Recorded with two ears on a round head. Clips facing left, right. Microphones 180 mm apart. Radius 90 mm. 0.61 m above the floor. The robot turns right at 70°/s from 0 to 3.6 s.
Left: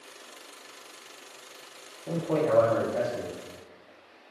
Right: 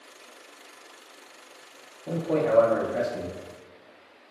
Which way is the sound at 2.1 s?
Centre (ahead or behind).